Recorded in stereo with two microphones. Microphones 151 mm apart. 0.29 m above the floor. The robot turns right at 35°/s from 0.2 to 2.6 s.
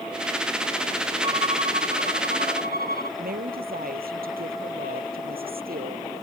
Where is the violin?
145° right; by 3.1 s 95° right.